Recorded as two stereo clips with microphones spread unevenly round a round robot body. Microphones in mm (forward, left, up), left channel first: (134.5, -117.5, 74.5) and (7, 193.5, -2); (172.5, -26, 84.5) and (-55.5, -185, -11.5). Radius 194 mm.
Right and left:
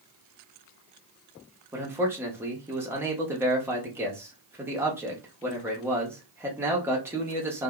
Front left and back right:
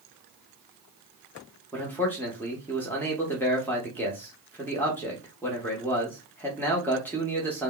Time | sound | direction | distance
1.7 | a man speaking | 155° left | 0.8 m